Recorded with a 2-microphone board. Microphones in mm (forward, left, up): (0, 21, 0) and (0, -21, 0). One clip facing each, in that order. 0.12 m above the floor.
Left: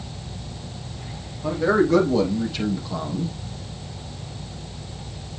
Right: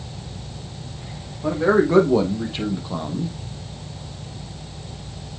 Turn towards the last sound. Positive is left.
turn(degrees=-15)  # may be behind; listen again after turning